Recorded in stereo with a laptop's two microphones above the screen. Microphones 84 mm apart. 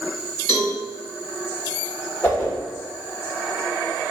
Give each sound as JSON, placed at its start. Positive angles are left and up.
{"t": 0.5, "sound": "a cowbell", "side_deg": -70, "distance_m": 1.7}
{"t": 2.2, "sound": "a whoosh", "side_deg": 20, "distance_m": 1.0}